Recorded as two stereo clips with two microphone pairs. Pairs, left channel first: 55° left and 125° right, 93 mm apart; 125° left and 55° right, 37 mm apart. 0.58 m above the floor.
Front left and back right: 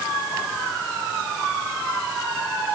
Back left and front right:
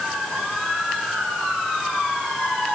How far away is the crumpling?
No crumpling in this recording.